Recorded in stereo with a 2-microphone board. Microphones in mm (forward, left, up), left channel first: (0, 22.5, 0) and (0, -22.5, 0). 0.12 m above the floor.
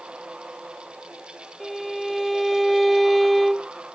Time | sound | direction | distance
1.6 | a violin | centre (ahead or behind) | ?